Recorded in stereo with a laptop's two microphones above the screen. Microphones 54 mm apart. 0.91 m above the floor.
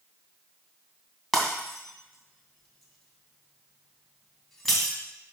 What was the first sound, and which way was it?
Breaking glass, 5° left (ahead or behind).